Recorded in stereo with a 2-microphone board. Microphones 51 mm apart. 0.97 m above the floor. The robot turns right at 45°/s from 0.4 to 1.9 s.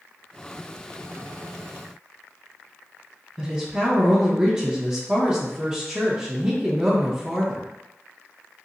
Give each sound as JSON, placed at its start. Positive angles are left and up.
{"t": 3.4, "sound": "a woman speaking", "side_deg": -20, "distance_m": 0.8}